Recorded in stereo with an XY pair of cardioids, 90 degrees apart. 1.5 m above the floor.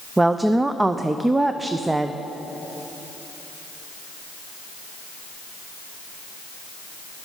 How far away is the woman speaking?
About 0.6 m.